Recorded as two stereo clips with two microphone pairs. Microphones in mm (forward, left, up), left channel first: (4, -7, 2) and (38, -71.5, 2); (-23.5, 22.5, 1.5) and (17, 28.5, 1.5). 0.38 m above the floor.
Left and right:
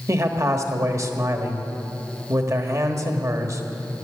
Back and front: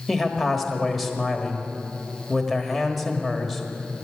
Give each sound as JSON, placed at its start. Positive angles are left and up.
{"t": 0.1, "sound": "a man speaking", "azimuth_deg": -85, "distance_m": 1.4}